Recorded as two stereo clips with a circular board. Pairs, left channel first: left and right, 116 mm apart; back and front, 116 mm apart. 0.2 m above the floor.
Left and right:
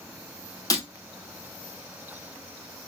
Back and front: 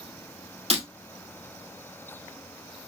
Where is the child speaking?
I don't hear a child speaking.